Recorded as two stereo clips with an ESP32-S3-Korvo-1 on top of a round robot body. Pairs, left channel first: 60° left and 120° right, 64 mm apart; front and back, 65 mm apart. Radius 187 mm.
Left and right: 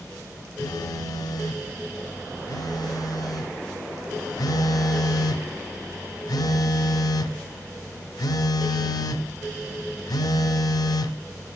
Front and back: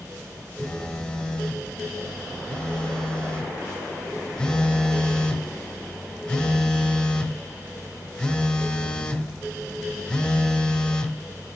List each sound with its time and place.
0.6 s a phone buzzing: 75° left, 0.6 m